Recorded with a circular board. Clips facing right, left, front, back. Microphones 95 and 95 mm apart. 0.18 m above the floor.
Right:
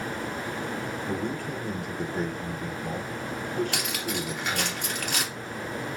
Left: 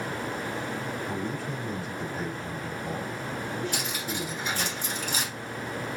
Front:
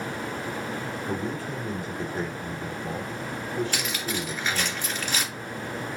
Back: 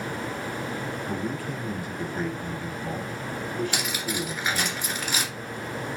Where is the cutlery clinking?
100° right, 2.5 m.